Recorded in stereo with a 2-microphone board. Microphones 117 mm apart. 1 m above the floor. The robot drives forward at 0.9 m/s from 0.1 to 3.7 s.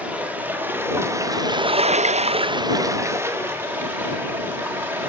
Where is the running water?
15° right (ahead or behind), 1.8 m.